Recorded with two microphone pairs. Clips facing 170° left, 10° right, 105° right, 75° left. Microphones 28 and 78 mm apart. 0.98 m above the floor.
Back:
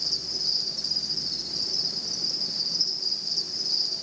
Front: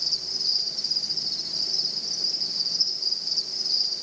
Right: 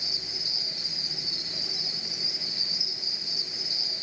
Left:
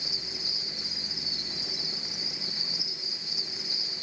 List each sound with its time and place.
0.0 s an insect: 90° right, 5.5 m